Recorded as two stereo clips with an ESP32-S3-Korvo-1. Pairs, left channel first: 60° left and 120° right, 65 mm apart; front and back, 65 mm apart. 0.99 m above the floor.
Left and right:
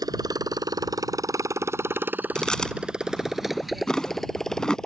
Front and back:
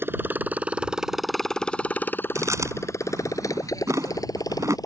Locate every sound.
0.0 s a motorcycle: 125° right; by 4.9 s 20° right
2.4 s chewing: 140° left